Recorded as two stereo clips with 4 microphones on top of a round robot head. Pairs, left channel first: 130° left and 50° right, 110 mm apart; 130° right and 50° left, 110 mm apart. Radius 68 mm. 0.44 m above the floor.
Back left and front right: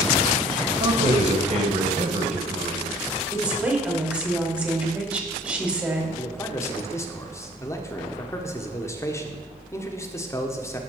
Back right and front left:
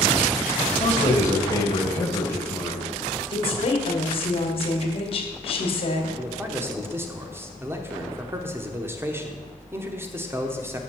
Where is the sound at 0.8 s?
70° right, 2 m.